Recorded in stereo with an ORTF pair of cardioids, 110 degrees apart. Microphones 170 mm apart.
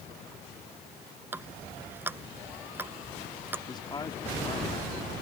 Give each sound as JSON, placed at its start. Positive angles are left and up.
{"t": 1.3, "sound": "a running tap", "azimuth_deg": -10}
{"t": 3.7, "sound": "a man speaking", "azimuth_deg": 25}